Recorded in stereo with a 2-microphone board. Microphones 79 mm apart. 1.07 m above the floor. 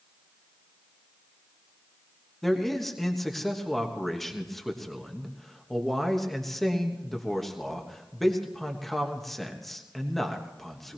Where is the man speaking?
Centre (ahead or behind), 1.3 m.